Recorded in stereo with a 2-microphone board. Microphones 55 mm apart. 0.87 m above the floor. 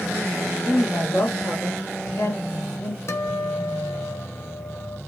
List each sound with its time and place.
0.6 s a woman speaking: 25° left (ahead or behind), 1.8 m; by 3.0 s 35° left (ahead or behind), 1.8 m
3.1 s a guitar: 55° left (ahead or behind), 0.7 m